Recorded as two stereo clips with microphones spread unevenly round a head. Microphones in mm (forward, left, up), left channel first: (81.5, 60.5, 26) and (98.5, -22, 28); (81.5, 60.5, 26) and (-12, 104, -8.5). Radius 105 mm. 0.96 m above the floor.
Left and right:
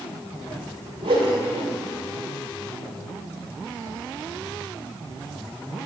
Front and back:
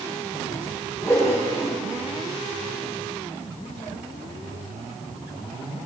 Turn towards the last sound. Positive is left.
turn(degrees=-115)